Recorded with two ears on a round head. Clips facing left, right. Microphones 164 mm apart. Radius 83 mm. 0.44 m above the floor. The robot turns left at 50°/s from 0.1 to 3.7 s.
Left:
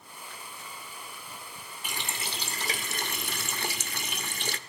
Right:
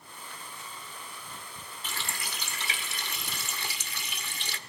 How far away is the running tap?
About 0.5 m.